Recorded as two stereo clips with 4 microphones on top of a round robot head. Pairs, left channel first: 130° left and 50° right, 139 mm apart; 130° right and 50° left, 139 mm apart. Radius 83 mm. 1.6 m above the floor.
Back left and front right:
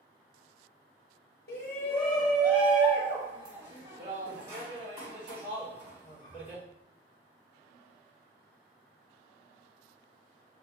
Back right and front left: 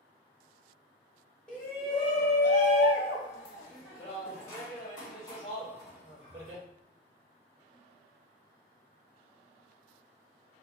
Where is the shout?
150° left, 0.8 m; by 6.6 s 65° right, 3.5 m.